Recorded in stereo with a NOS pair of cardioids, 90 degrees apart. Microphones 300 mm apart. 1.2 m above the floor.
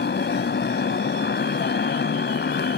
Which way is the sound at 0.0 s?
35° left.